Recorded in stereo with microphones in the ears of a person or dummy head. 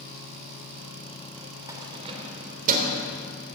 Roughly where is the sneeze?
No sneeze in this recording.